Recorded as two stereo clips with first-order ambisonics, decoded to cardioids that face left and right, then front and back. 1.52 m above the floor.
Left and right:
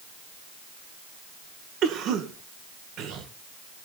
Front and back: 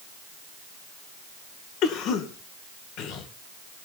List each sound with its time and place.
1.8 s a cough: 45° right, 1.9 m